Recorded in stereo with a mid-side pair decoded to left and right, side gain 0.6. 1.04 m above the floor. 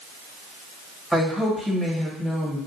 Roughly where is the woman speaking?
Ahead.